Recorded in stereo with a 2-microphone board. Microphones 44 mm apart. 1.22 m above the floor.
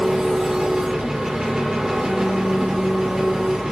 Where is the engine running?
15° right (ahead or behind), 2 m.